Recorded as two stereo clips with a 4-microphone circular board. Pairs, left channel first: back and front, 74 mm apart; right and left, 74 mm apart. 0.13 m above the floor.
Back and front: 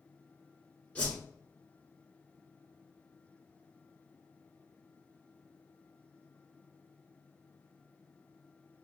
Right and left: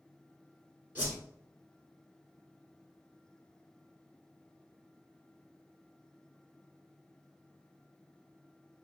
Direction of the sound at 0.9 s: 130° left.